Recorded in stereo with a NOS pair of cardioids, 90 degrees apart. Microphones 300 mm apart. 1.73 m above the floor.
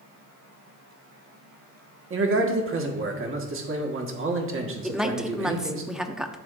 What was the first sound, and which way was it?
A man speaking, 45° right.